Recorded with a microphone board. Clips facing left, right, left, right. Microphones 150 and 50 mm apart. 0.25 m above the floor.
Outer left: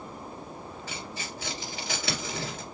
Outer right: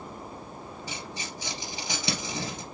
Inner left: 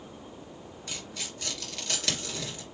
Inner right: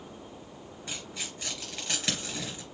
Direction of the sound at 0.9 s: 20° right (ahead or behind).